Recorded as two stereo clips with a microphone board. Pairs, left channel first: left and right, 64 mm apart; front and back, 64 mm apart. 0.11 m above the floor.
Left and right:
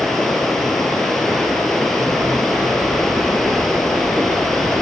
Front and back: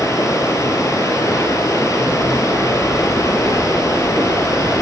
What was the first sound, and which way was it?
Running water, 5° left.